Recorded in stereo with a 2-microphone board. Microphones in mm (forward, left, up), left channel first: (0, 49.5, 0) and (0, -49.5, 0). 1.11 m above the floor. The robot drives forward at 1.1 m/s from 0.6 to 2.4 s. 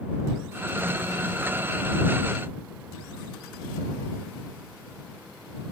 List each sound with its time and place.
Only background noise.